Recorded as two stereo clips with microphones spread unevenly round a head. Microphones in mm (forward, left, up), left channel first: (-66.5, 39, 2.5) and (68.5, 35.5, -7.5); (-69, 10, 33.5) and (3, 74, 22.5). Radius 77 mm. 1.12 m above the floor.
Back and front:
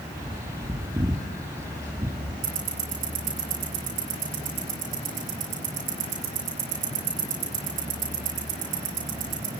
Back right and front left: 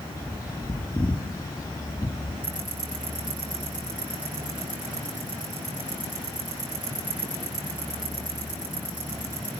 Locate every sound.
0.1 s a bird: 75° right, 2 m
2.4 s ticking: 45° right, 7.5 m